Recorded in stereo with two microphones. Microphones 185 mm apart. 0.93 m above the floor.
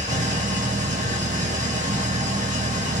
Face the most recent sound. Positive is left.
turn(degrees=-45)  # may be behind; listen again after turning